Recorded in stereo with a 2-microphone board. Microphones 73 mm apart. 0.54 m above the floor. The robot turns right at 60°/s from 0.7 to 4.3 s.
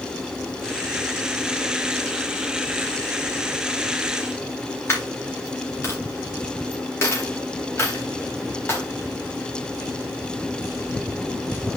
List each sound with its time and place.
4.9 s a dropped coin: 30° left (ahead or behind), 4 m